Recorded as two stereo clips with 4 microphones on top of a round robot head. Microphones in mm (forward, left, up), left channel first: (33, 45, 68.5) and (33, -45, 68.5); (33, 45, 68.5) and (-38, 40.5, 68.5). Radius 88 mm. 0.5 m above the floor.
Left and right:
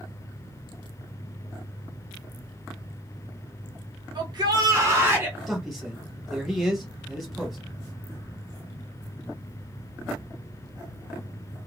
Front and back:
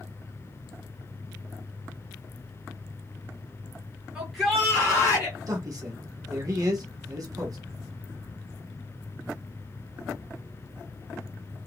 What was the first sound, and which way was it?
A shout, 100° right.